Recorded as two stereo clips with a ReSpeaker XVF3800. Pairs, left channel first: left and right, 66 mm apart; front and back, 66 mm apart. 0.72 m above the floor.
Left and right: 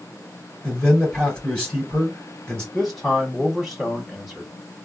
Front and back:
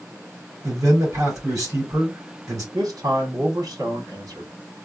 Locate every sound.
0.6 s a man speaking: 160° left, 2.5 m
2.7 s a man speaking: straight behind, 1.9 m